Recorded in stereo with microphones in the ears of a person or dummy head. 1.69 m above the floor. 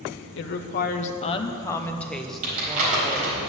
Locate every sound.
0.4 s a woman speaking: 60° left (ahead or behind), 0.9 m; by 3.4 s 20° right (ahead or behind), 1.6 m
2.4 s crumpling: 45° right (ahead or behind), 4.5 m